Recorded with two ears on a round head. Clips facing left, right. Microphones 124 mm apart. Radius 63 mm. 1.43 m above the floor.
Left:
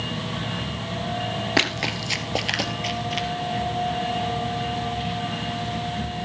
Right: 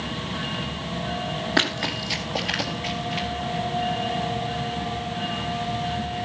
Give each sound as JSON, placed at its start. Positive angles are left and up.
{"t": 1.6, "sound": "running footsteps", "side_deg": 15, "distance_m": 1.6}